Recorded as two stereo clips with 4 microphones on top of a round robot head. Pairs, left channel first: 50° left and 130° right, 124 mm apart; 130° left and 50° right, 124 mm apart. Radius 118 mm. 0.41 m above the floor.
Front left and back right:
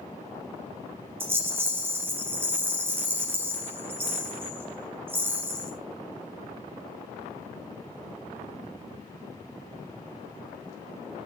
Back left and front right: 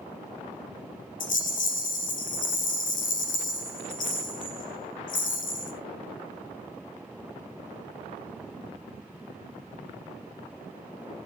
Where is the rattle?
150° left, 3 m.